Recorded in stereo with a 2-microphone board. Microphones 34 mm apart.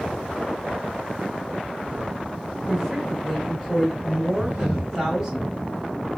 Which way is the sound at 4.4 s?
60° right (ahead or behind).